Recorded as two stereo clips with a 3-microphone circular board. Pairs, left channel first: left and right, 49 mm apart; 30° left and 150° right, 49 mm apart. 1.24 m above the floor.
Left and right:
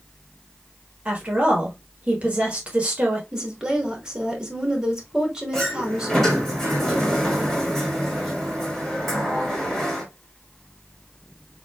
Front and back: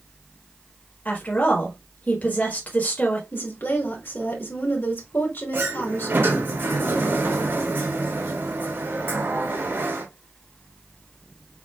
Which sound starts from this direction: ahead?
A woman speaking, at 3.3 s.